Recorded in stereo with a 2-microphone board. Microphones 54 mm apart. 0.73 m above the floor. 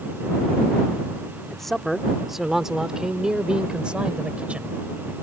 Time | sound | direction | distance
1.5 | a man speaking | 5° left (ahead or behind) | ?